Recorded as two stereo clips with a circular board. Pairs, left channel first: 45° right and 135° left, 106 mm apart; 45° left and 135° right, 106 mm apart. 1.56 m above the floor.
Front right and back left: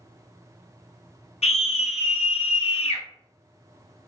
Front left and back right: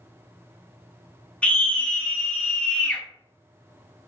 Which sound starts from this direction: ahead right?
A scream, at 1.4 s.